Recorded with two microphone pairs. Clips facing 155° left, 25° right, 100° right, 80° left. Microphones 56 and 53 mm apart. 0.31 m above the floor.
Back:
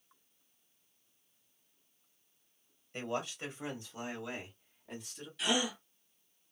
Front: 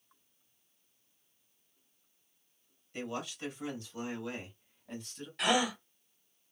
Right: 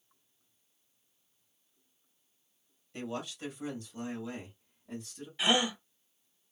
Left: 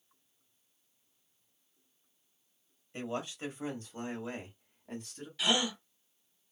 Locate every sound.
2.9 s a man speaking: 125° left, 1.8 m; by 5.3 s 75° left, 2 m
5.4 s a gasp: 35° right, 0.9 m